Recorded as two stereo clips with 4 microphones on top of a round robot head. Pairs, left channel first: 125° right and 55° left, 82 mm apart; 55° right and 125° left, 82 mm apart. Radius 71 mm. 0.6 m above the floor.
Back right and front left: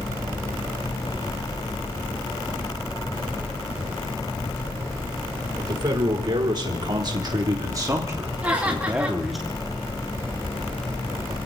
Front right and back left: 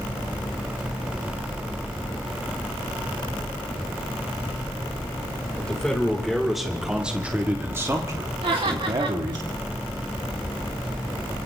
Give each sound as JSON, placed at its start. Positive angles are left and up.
{"t": 5.6, "sound": "a man speaking", "azimuth_deg": 25, "distance_m": 3.0}
{"t": 8.4, "sound": "laughter", "azimuth_deg": 130, "distance_m": 5.5}